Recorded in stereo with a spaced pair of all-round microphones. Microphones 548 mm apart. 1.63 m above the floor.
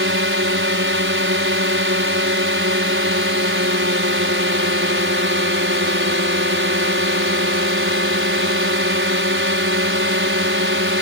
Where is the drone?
20° right (ahead or behind).